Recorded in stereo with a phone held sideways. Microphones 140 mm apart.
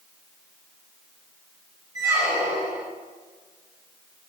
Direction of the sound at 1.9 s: 25° right (ahead or behind).